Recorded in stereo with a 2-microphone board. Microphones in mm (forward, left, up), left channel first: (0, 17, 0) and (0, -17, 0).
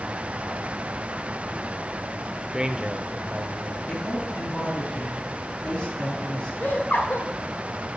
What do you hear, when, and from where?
2.5 s a man speaking: 20° right (ahead or behind), 0.9 m; by 3.8 s 45° right (ahead or behind), 1.5 m
3.9 s a woman speaking: 30° left (ahead or behind), 4 m
6.6 s laughter: 50° left (ahead or behind), 2.5 m